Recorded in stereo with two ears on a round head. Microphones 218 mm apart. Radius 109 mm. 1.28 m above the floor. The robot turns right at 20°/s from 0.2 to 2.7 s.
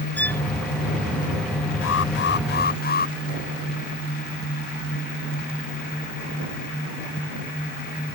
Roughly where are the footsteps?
I don't hear footsteps.